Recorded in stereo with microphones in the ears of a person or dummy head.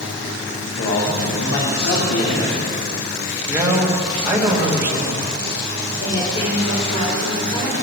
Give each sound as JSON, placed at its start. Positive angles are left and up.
{"t": 0.8, "sound": "a man speaking", "side_deg": 65, "distance_m": 2.5}
{"t": 3.5, "sound": "a man speaking", "side_deg": -10, "distance_m": 2.5}
{"t": 6.0, "sound": "a woman speaking", "side_deg": 30, "distance_m": 5.5}